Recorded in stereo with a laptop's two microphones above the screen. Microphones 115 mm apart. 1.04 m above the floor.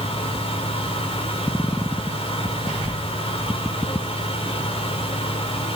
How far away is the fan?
About 4.5 m.